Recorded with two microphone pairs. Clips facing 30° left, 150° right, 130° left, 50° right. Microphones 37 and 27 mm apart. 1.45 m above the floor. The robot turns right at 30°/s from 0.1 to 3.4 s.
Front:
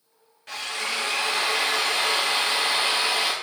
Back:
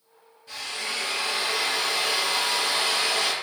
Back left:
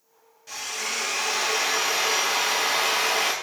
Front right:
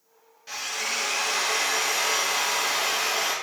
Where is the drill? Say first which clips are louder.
Front 3 dB, front right 1 dB; 20° left, 0.6 m; by 3.3 s 105° left, 0.6 m.